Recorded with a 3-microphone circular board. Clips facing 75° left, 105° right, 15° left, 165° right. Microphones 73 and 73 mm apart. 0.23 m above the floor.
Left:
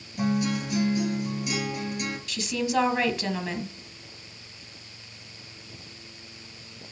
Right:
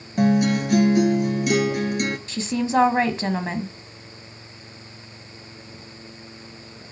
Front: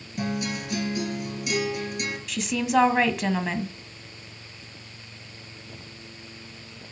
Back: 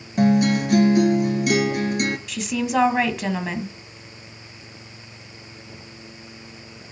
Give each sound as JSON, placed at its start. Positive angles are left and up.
{"t": 0.2, "sound": "a guitar", "azimuth_deg": -130, "distance_m": 1.6}
{"t": 2.3, "sound": "a woman speaking", "azimuth_deg": -75, "distance_m": 1.5}